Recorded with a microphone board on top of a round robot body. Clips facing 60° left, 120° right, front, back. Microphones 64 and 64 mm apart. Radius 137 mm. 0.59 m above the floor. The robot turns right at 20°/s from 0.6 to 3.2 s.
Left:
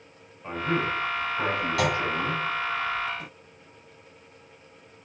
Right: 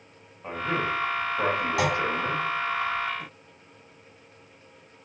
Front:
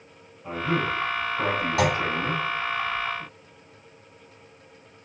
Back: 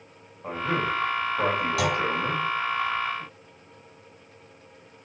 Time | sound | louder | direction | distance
0.4 | a man speaking | left 1 dB, front 1 dB | straight behind | 4 m
1.8 | a clunk | left 1 dB, front 5 dB | 55° right | 2 m